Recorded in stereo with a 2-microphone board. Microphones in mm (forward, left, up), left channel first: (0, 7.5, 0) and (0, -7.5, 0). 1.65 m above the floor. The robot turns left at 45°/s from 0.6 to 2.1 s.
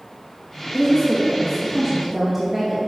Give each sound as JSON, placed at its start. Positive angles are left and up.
{"t": 0.7, "sound": "a woman speaking", "azimuth_deg": 50, "distance_m": 2.5}